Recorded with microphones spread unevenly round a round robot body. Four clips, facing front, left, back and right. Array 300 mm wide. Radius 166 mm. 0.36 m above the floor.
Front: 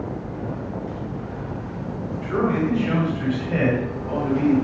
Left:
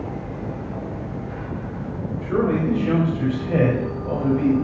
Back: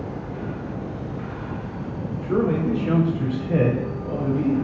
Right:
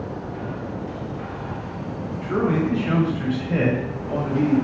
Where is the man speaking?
165° left, 2.5 m; by 4.5 s 130° left, 3 m.